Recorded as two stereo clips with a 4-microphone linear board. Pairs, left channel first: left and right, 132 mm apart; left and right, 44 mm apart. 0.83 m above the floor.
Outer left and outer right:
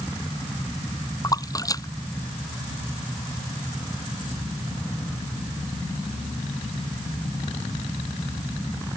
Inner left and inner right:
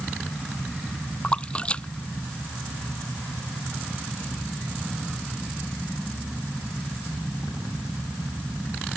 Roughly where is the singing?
No singing in this recording.